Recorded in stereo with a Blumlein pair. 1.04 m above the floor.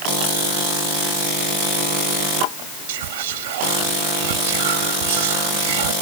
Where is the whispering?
55° right.